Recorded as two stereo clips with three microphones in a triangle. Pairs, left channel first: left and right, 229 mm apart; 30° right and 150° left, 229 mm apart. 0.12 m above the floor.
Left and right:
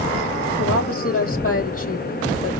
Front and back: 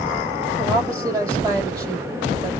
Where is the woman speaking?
70° left, 3.5 m.